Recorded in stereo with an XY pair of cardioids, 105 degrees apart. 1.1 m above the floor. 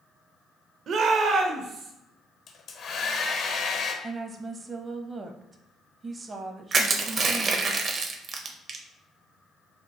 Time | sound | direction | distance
0.9 | a shout | 60° right | 0.6 m
2.5 | a hair dryer | 65° left | 0.7 m
4.0 | a woman speaking | 35° right | 0.6 m
6.7 | crushing | 50° right | 0.7 m